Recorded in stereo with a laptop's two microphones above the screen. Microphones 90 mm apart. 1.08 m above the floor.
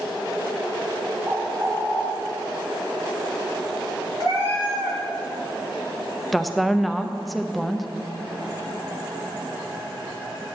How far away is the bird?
About 1.5 m.